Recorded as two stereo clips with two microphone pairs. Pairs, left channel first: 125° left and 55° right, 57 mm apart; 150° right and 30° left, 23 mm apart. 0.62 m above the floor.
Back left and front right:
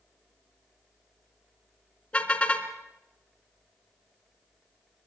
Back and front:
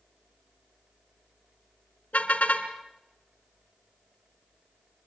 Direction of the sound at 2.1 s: 165° right.